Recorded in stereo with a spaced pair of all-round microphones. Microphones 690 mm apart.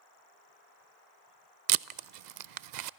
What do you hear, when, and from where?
1.7 s tape being pulled: 85° right, 0.5 m